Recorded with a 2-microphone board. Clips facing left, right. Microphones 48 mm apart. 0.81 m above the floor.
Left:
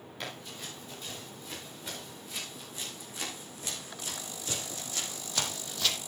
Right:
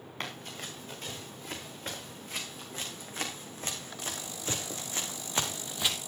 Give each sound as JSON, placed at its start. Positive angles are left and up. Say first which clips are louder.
{"t": 0.2, "sound": "running footsteps", "louder": "right 2 dB", "side_deg": -45, "distance_m": 6.0}